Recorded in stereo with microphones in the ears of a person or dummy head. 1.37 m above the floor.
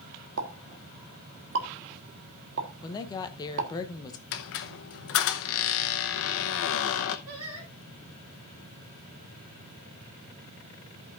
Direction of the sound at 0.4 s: 70° right (ahead or behind).